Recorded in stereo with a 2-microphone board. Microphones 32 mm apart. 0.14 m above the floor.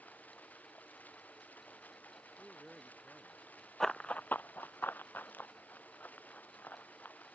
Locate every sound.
0.0 s running water: 60° left (ahead or behind)
2.4 s a man speaking: centre (ahead or behind)
3.8 s running footsteps: 10° left (ahead or behind); by 7.2 s 65° left (ahead or behind)